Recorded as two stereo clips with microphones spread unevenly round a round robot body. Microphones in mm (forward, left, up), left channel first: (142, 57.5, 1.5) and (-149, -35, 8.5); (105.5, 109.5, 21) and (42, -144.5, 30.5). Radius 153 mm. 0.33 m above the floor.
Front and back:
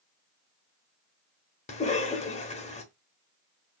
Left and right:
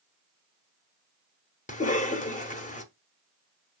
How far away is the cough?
About 0.9 m.